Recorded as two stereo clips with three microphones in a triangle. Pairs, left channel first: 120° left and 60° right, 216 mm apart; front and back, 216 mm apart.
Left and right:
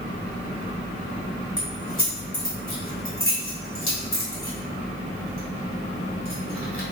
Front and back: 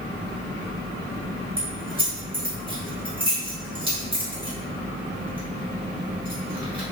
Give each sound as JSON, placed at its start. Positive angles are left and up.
{"t": 1.6, "sound": "keys jangling", "azimuth_deg": 115, "distance_m": 1.1}